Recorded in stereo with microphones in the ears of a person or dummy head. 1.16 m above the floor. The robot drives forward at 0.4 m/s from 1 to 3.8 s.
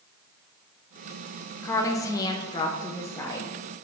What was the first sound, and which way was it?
A woman speaking, 15° left (ahead or behind).